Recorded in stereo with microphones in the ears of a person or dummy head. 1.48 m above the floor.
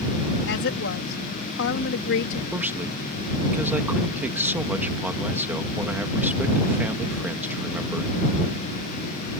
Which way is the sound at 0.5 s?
60° left (ahead or behind).